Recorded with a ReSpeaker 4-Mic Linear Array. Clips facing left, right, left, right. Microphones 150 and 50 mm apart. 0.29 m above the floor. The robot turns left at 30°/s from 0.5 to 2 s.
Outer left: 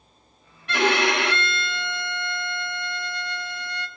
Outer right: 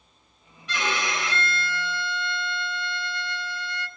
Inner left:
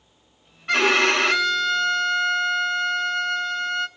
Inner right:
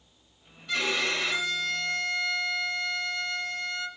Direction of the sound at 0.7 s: 115° left.